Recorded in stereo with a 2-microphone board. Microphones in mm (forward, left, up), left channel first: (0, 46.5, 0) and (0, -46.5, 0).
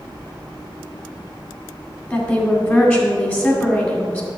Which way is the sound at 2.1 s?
20° left (ahead or behind).